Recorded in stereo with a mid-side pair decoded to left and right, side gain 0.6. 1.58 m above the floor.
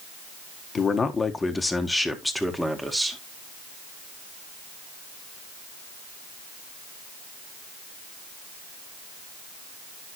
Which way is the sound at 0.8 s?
30° left.